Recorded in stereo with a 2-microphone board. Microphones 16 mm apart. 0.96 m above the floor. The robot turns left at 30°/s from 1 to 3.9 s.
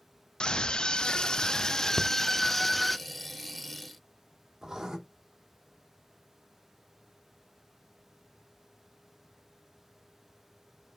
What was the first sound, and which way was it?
A scream, 65° left.